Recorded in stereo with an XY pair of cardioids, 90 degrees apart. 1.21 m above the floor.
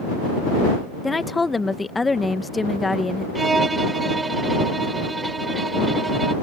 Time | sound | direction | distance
1.0 | a woman speaking | 25° left | ?
3.4 | a violin | 25° right | ?